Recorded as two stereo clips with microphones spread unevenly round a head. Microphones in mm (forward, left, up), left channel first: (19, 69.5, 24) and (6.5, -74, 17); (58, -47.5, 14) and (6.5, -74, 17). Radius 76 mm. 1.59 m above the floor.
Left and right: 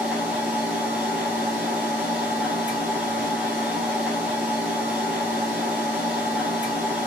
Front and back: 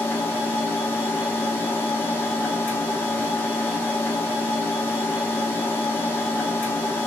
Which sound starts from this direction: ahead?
A machine running, at 0.0 s.